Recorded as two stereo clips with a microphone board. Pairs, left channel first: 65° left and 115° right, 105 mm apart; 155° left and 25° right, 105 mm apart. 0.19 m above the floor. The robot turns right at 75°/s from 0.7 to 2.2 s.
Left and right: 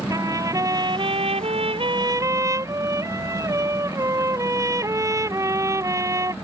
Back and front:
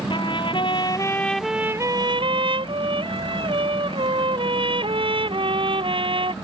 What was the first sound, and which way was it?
A trumpet, 165° right.